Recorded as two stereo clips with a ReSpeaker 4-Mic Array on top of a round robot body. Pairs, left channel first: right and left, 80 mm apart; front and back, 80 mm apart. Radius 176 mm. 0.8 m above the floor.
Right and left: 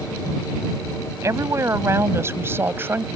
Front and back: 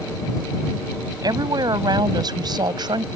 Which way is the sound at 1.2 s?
145° left.